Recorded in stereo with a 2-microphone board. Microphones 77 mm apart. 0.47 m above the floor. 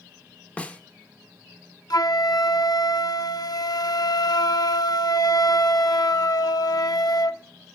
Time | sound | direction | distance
0.6 | a snare drum | 20° left (ahead or behind) | 0.8 m
1.9 | a flute | 65° left (ahead or behind) | 0.6 m